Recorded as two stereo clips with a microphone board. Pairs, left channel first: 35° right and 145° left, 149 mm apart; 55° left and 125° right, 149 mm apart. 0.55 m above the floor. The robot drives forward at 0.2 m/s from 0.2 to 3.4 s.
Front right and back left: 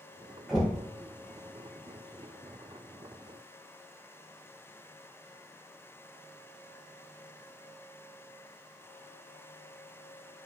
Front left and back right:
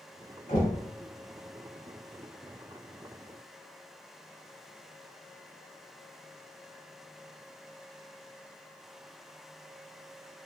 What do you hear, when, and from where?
0.5 s knocking: 60° left, 1.8 m